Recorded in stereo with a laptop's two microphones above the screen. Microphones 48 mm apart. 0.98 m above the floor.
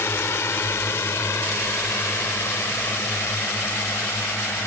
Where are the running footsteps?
I don't hear running footsteps.